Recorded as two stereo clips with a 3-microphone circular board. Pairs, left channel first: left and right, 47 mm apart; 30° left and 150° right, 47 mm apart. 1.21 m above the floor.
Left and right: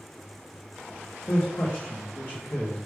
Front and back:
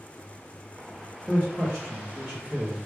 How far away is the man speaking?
About 0.7 m.